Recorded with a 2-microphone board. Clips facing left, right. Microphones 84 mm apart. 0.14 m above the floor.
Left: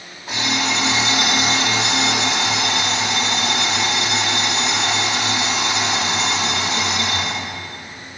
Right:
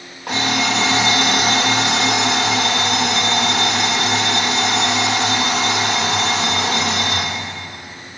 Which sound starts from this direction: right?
An alarm clock, at 0.3 s.